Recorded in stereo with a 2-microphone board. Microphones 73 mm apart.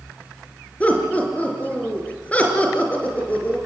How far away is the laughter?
About 3.5 m.